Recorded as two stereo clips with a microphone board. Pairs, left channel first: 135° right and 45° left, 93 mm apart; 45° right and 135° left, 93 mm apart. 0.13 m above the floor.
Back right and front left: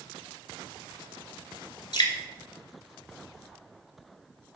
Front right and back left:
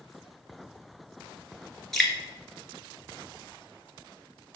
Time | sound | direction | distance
1.9 | dripping | 130° right | 0.8 m